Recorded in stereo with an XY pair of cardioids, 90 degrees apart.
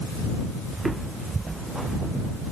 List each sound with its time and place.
0.7 s footsteps: 30° right